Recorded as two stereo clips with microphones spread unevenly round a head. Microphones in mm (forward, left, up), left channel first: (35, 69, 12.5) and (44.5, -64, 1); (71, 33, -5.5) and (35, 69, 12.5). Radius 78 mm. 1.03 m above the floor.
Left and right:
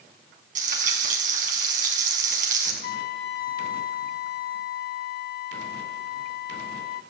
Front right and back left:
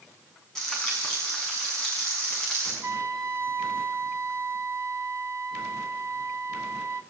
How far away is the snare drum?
No snare drum in this recording.